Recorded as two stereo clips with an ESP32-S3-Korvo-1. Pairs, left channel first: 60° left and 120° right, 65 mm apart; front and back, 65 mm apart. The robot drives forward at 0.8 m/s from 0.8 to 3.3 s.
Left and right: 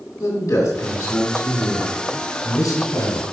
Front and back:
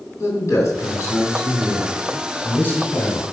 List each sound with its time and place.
0.2 s a man speaking: 35° left, 4 m; by 3.2 s 65° left, 2.5 m